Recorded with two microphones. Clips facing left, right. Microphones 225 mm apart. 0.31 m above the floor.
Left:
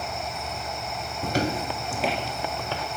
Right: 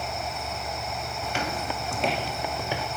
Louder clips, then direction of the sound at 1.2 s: Left 7 dB; 50° left (ahead or behind).